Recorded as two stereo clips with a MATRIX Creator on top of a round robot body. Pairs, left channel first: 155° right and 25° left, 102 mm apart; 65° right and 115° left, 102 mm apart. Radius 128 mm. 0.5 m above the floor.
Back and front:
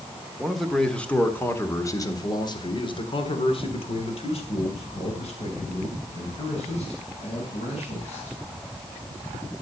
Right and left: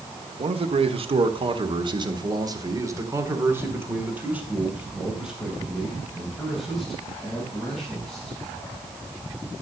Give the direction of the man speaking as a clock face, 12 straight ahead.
8 o'clock.